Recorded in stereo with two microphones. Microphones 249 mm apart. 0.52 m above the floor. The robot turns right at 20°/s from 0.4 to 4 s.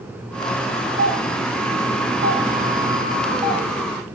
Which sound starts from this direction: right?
A doorbell, at 1.0 s.